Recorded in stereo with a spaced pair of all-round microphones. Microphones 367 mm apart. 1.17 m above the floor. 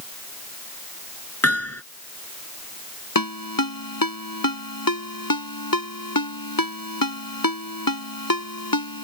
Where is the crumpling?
No crumpling in this recording.